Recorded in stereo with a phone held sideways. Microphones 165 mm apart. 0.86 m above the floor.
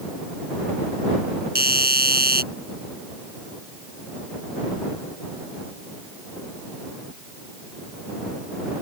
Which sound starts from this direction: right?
A doorbell, at 1.6 s.